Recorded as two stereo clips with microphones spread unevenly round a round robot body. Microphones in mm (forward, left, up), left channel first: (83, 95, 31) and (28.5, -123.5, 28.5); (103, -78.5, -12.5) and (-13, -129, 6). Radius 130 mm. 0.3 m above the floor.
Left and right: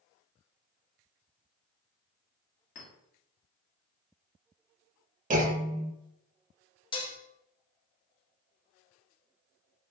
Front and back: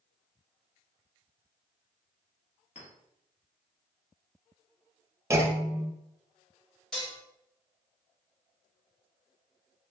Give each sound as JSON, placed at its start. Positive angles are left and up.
{"t": 2.8, "sound": "a clink", "azimuth_deg": 50, "distance_m": 1.5}
{"t": 5.3, "sound": "a clunk", "azimuth_deg": -90, "distance_m": 0.6}
{"t": 6.9, "sound": "dishes clattering", "azimuth_deg": 75, "distance_m": 0.6}